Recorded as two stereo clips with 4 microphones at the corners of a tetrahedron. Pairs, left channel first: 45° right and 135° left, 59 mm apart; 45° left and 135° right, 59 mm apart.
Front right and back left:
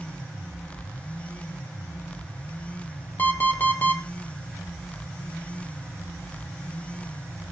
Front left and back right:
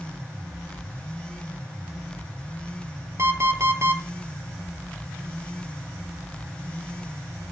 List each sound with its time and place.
3.2 s an alarm clock: 100° right, 1.6 m